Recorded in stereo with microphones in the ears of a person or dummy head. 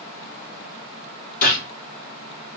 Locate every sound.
1.4 s a gunshot: 50° left (ahead or behind), 2 m